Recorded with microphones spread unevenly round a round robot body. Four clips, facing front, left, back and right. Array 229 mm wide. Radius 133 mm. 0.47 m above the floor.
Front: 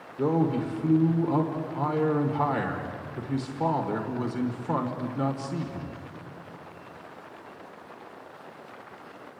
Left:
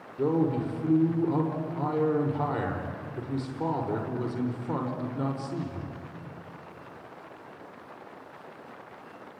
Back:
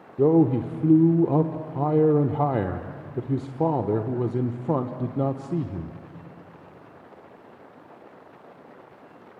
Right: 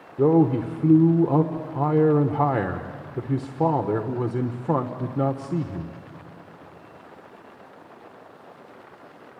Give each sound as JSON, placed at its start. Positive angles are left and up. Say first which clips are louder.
{"t": 0.2, "sound": "a man speaking", "louder": "right 7 dB, back 6 dB", "azimuth_deg": -140, "distance_m": 1.3}